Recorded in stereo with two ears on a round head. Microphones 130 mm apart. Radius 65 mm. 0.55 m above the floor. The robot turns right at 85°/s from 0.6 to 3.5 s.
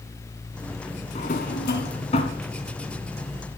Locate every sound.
1.1 s a drawer: 45° left (ahead or behind), 1.3 m; by 2.4 s 30° left (ahead or behind), 1.3 m